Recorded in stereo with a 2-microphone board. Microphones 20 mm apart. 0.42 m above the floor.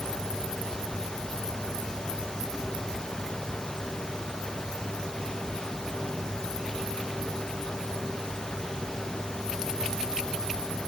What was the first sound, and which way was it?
Only background noise.